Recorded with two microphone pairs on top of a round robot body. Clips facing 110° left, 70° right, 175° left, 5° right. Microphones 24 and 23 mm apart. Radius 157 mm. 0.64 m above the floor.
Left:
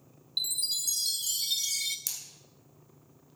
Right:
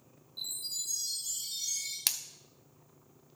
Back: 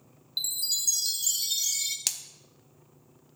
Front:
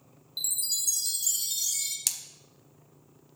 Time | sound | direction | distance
0.4 | a chime | 110° left | 0.8 m
2.1 | a splash | 110° right | 0.6 m